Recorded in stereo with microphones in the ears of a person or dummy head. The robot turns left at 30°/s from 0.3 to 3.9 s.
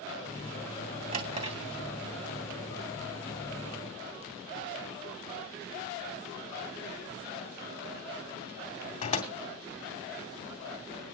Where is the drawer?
45° right (ahead or behind), 2.5 m; by 9.3 s 35° left (ahead or behind), 2.5 m.